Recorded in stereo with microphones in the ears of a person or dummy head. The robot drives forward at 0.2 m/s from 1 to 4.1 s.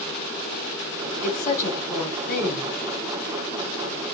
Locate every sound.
1.2 s a woman speaking: 40° left (ahead or behind), 1.8 m; by 2.7 s 50° left (ahead or behind), 1.6 m